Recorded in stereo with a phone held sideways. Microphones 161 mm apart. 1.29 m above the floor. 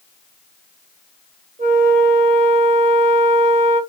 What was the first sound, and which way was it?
A flute, 45° right (ahead or behind).